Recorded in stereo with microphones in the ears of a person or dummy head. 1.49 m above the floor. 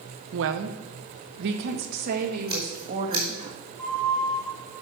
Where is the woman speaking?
70° right (ahead or behind), 1.0 m; by 3.5 s 40° right (ahead or behind), 2 m.